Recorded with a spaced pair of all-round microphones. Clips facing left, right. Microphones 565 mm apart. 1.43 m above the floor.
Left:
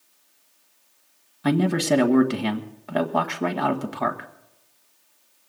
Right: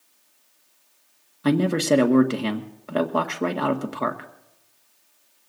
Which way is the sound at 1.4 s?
15° left (ahead or behind).